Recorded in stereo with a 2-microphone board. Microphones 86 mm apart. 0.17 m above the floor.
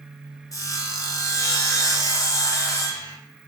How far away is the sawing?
About 0.7 m.